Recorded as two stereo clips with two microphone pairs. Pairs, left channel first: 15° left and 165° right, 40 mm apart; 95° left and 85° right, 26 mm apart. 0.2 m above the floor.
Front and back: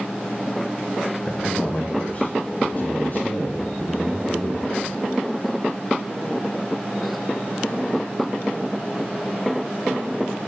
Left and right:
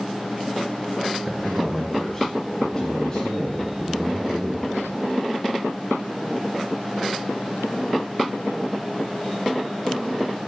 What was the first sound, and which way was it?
A man speaking, straight ahead.